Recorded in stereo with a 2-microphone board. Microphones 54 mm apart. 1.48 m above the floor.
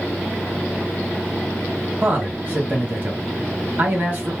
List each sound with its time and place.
2.0 s a man speaking: 35° right (ahead or behind), 1.4 m